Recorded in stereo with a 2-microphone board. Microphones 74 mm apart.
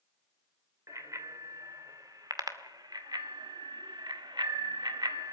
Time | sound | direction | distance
0.9 | a bicycle bell | 45° right (ahead or behind) | 2.5 m